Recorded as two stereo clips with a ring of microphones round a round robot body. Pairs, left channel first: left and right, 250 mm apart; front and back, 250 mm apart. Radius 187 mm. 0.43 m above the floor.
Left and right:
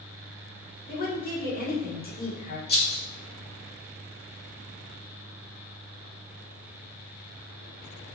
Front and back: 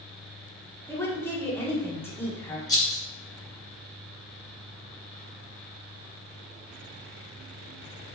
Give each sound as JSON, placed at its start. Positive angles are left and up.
{"t": 0.9, "sound": "a woman speaking", "azimuth_deg": 75, "distance_m": 1.3}
{"t": 2.7, "sound": "a rattle", "azimuth_deg": 70, "distance_m": 1.5}